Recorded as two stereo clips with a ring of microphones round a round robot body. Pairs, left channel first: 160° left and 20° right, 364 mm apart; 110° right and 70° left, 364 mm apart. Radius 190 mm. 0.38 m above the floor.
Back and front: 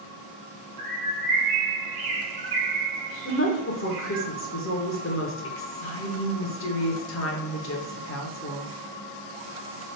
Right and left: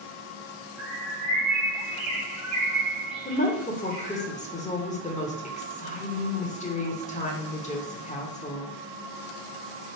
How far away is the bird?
About 1.4 m.